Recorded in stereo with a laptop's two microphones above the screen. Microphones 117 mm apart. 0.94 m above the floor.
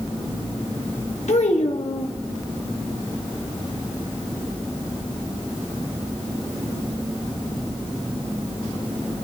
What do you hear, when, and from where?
1.3 s a child speaking: 75° left (ahead or behind), 1.0 m